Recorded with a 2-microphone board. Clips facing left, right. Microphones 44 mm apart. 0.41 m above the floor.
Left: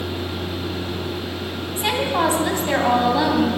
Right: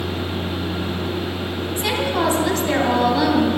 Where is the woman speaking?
20° left (ahead or behind), 2.5 m.